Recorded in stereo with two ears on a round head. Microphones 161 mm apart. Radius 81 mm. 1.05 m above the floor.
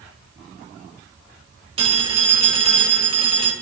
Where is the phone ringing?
30° right (ahead or behind), 2.5 m.